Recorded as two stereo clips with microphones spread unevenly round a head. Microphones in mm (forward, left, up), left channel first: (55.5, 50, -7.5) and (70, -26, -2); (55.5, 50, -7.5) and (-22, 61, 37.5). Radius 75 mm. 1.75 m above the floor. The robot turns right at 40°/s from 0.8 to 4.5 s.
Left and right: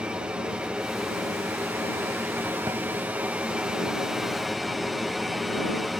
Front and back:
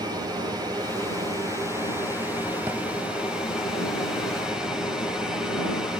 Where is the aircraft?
140° right; by 6.0 s 10° left.